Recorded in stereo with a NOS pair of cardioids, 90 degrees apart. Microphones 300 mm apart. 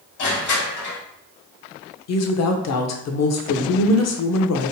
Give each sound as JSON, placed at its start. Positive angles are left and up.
{"t": 0.2, "sound": "crushing", "azimuth_deg": 65, "distance_m": 1.8}
{"t": 2.1, "sound": "a woman speaking", "azimuth_deg": 55, "distance_m": 0.7}